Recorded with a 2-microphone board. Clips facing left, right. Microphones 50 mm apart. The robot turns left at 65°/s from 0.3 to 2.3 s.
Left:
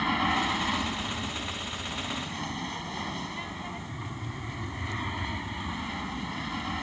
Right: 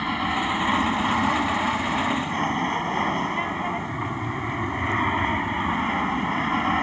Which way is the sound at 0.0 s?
5° right.